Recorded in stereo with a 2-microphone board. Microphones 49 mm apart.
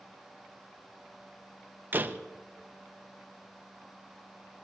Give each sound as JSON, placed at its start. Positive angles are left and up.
{"t": 1.9, "sound": "a door slam", "side_deg": -40, "distance_m": 0.8}